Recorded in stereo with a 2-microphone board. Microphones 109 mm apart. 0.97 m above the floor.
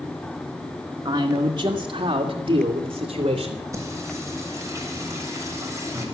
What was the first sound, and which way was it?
A man speaking, 40° right (ahead or behind).